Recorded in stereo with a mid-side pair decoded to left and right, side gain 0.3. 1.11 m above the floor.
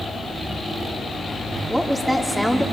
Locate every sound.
1.7 s a woman speaking: 10° right, 3.5 m